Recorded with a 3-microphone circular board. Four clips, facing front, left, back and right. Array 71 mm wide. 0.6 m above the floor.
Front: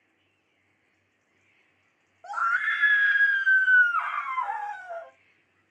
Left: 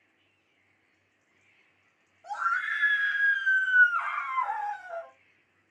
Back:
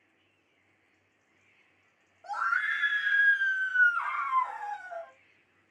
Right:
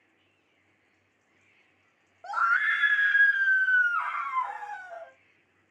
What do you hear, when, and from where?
2.2 s a scream: 65° right, 0.9 m; by 5.1 s 25° left, 1.6 m